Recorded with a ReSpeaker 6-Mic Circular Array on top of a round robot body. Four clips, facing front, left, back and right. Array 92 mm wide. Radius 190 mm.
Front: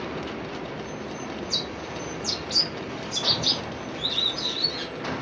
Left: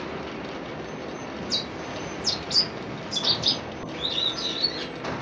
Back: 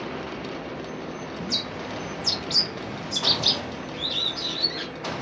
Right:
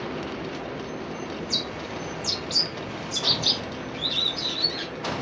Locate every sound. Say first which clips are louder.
1.4 s a bird: even, back 1 dB; 160° left, 0.8 m
3.9 s a bird: even, front 1 dB; 160° left, 0.8 m